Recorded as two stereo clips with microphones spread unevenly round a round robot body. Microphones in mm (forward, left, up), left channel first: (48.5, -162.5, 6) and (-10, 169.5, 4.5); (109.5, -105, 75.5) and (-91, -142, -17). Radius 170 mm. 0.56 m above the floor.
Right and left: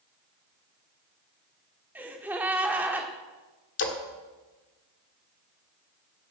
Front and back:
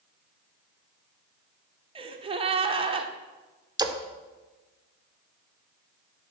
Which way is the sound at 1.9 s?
175° right.